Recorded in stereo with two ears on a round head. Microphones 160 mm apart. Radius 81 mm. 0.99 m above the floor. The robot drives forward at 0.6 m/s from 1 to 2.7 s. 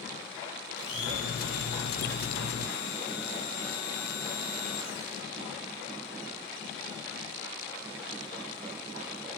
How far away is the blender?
About 2.5 m.